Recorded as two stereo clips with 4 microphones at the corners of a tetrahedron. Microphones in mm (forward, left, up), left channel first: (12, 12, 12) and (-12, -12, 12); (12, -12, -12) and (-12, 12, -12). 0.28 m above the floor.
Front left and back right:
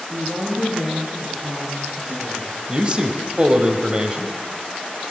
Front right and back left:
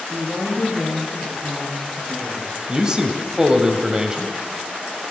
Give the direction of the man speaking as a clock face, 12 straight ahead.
6 o'clock.